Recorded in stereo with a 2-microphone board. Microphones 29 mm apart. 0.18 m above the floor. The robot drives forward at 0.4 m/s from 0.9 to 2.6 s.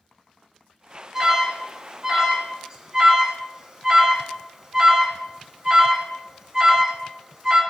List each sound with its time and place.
1.1 s an alarm: 20° right (ahead or behind), 1.3 m; by 7.6 s 25° right (ahead or behind), 0.9 m